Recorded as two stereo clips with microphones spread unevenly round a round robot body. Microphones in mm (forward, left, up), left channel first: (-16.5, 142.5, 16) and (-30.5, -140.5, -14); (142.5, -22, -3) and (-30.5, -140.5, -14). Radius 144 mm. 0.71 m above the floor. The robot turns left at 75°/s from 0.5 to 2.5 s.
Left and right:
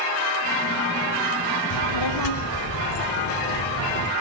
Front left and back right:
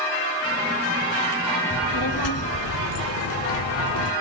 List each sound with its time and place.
1.7 s a child speaking: 90° left, 1.2 m; by 4.1 s 30° left, 1.2 m